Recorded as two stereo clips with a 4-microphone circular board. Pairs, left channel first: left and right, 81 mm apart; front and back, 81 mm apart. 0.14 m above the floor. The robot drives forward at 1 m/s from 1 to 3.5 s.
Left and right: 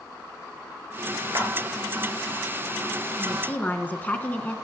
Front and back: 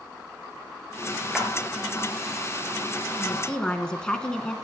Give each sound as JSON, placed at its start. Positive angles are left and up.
{"t": 1.3, "sound": "a clap", "azimuth_deg": -100, "distance_m": 2.5}
{"t": 3.2, "sound": "a woman speaking", "azimuth_deg": 40, "distance_m": 1.3}